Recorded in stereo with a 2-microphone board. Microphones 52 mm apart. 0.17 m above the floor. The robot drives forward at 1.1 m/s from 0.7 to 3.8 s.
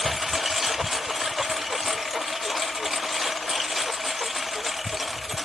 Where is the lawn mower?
5° right (ahead or behind).